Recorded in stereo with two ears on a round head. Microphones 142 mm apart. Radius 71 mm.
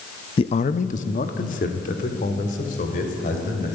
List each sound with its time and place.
0.4 s a man speaking: 35° left (ahead or behind), 0.6 m; by 3.8 s 50° left (ahead or behind), 5 m